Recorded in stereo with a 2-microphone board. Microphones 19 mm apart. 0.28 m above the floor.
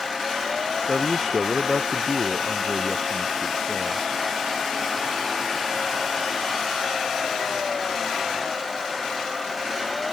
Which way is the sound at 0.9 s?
40° left (ahead or behind).